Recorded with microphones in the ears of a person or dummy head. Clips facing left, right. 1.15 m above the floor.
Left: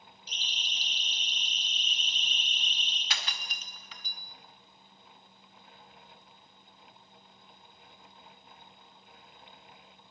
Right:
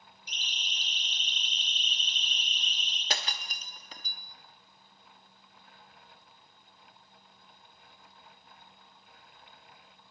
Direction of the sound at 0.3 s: 15° right (ahead or behind).